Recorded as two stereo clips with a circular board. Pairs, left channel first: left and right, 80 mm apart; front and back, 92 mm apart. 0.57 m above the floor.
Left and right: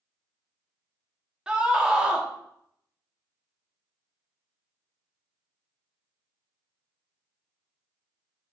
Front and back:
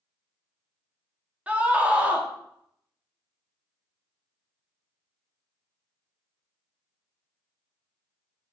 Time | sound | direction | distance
1.5 | a scream | 140° right | 1.0 m